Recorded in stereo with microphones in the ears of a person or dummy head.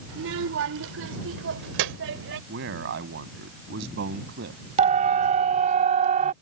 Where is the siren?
45° right (ahead or behind).